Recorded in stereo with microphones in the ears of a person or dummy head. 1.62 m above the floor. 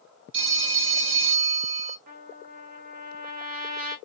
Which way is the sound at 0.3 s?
35° right (ahead or behind).